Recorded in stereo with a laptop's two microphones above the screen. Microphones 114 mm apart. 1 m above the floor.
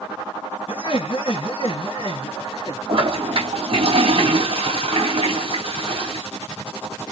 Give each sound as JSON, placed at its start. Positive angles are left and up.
{"t": 0.7, "sound": "laughter", "side_deg": 50, "distance_m": 1.6}
{"t": 2.9, "sound": "a toilet flushing", "side_deg": -55, "distance_m": 2.5}